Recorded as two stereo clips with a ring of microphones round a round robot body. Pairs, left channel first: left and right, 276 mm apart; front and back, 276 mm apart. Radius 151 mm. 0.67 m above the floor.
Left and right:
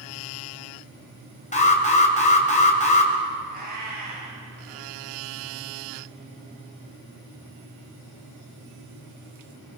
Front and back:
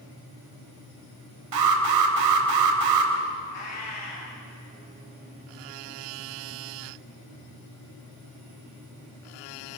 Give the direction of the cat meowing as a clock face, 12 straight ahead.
1 o'clock.